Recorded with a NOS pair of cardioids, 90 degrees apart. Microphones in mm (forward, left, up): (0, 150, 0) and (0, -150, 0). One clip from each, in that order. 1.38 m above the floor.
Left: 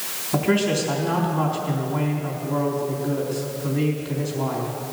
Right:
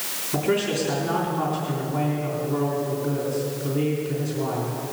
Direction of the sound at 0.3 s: 30° left.